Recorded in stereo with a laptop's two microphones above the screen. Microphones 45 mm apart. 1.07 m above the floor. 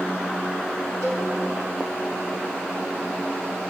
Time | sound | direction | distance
1.0 | a cowbell | 80° right | 2.5 m